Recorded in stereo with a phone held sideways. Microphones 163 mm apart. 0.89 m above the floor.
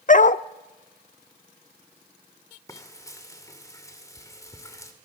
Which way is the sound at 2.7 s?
20° left (ahead or behind).